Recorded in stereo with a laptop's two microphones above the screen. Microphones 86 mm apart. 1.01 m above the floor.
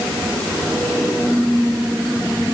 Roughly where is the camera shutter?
No camera shutter in this recording.